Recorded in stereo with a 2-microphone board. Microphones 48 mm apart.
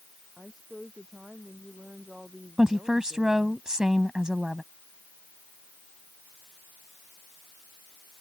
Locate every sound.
0.4 s a woman speaking: 10° right (ahead or behind)
2.6 s a woman speaking: 15° right (ahead or behind)